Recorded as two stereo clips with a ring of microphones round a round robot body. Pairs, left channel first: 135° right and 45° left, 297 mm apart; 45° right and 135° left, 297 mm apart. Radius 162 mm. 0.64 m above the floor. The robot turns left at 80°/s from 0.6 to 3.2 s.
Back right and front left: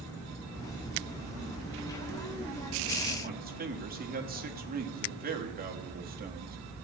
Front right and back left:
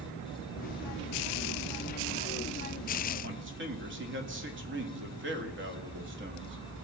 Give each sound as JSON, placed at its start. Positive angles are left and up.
{"t": 3.2, "sound": "a man speaking", "azimuth_deg": 95, "distance_m": 1.5}